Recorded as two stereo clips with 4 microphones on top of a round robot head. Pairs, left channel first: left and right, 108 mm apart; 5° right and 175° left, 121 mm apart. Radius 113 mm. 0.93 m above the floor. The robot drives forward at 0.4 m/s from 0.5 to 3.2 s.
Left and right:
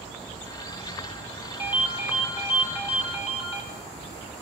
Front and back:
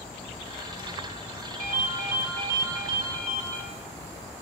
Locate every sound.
1.6 s a ringtone: 165° right, 4.5 m